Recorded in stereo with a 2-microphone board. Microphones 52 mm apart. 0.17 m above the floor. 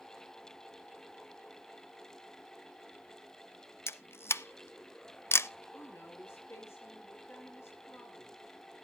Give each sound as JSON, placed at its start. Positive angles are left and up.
{"t": 3.9, "sound": "a camera shutter", "side_deg": 55, "distance_m": 0.5}
{"t": 5.7, "sound": "a woman speaking", "side_deg": 55, "distance_m": 3.5}